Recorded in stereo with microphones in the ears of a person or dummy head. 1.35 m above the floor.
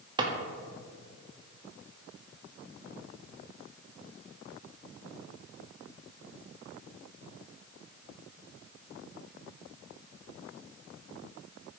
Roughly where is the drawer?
Right.